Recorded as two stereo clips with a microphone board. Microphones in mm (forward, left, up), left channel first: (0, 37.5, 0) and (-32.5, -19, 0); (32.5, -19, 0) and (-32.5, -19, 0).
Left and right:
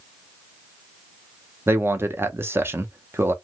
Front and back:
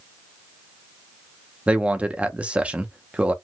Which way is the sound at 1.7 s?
125° right.